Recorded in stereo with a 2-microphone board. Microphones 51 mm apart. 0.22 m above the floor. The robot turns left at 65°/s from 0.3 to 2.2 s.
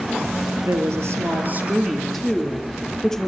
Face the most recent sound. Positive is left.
turn(degrees=170)